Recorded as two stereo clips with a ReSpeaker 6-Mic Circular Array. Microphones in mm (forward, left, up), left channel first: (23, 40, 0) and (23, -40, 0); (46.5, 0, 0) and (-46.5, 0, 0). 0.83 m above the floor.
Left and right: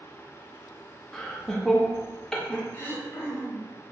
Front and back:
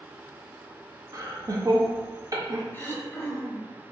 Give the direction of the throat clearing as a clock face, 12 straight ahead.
10 o'clock.